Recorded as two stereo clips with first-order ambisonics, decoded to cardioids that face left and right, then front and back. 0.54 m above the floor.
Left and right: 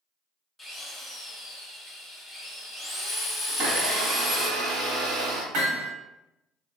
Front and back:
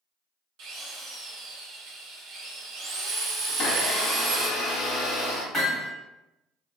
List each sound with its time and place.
0.6 s a drill: 175° left, 0.7 m
3.5 s a blender: 65° right, 1.1 m
5.5 s hammering: 90° right, 1.4 m